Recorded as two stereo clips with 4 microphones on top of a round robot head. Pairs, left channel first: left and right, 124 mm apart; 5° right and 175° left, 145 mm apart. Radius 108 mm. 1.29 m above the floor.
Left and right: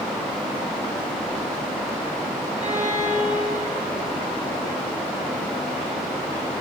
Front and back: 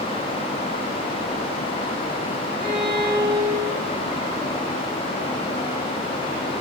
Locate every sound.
2.6 s a violin: 125° right, 3.5 m